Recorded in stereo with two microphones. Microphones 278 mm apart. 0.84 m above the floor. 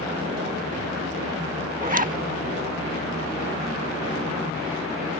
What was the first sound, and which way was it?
A zipper, 30° right (ahead or behind).